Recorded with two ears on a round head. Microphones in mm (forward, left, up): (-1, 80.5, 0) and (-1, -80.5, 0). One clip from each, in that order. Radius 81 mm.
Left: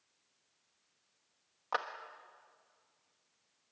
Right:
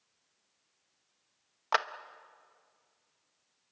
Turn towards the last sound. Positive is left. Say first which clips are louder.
# right 7 dB
turn(degrees=-55)  # may be behind; listen again after turning